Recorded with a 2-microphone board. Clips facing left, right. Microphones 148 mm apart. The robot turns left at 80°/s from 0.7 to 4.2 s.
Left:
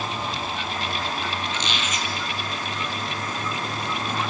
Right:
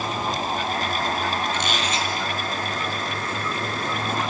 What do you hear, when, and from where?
1.5 s a squeak: 115° right, 2.5 m; by 2.1 s 160° right, 2.5 m